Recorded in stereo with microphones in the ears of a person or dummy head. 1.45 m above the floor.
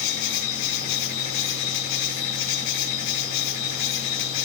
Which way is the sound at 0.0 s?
55° left (ahead or behind).